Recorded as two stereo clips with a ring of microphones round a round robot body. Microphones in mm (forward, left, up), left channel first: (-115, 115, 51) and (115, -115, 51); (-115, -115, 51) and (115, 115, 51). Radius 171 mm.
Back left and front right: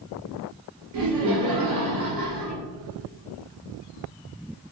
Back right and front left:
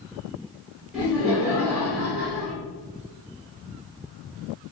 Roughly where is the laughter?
Ahead right.